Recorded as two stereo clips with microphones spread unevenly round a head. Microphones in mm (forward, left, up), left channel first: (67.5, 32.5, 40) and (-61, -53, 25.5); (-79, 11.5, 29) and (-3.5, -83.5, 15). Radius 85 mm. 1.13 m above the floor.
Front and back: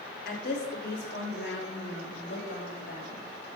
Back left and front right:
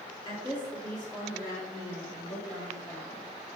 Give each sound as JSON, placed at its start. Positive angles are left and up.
{"t": 0.2, "sound": "a woman speaking", "azimuth_deg": 65, "distance_m": 2.5}